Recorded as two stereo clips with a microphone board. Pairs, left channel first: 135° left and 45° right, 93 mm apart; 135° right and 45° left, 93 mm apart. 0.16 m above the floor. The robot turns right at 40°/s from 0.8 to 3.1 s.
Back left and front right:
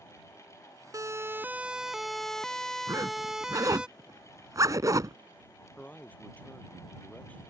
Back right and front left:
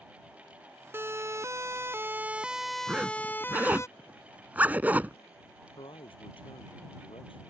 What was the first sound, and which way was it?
A siren, 10° right.